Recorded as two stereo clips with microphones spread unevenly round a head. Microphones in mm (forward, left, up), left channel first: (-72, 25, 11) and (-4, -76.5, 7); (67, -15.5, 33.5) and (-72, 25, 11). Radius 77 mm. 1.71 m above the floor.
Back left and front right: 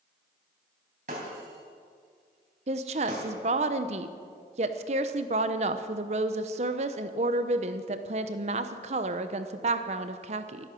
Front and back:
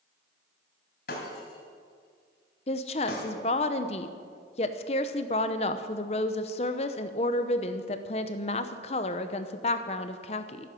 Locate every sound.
1.1 s breaking glass: 15° right, 3.5 m
2.7 s a woman speaking: 40° right, 0.8 m